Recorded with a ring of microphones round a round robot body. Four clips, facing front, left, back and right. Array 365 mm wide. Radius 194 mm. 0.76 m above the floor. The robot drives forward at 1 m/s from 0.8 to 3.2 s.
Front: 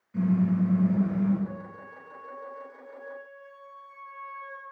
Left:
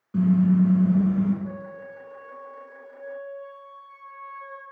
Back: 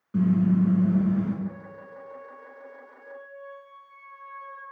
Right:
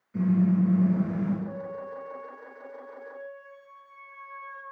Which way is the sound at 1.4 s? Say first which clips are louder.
Right 1 dB, back 2 dB; 60° left.